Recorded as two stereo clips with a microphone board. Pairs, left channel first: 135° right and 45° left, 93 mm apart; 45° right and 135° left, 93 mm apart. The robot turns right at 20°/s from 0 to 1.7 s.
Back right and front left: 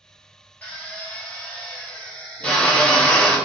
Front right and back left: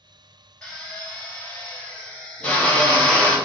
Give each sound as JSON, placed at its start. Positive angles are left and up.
{"t": 0.6, "sound": "a drill", "azimuth_deg": -105, "distance_m": 0.9}